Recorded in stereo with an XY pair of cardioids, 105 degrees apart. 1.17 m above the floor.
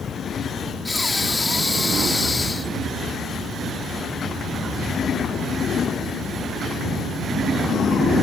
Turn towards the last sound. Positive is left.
turn(degrees=20)